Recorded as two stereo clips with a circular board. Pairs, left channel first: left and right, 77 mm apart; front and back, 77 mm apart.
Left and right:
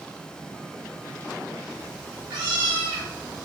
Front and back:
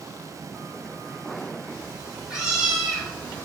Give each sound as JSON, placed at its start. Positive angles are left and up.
{"t": 1.7, "sound": "a cat meowing", "azimuth_deg": -105, "distance_m": 1.8}